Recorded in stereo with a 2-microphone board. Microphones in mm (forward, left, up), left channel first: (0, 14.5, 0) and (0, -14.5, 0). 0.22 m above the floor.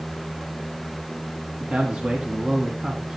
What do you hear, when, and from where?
1.6 s a man speaking: 50° right (ahead or behind), 2 m; by 3.2 s 30° right (ahead or behind), 2.0 m